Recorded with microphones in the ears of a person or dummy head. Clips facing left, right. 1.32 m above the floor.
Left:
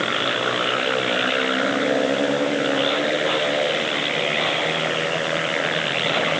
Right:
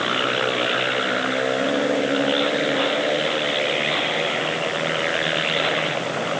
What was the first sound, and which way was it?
Only background noise.